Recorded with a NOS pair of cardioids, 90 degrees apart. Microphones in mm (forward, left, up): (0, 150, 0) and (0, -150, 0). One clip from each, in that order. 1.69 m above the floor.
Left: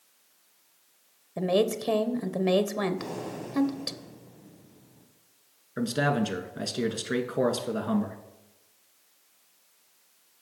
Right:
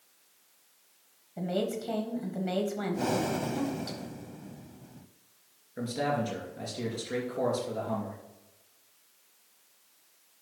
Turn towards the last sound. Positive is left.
turn(degrees=65)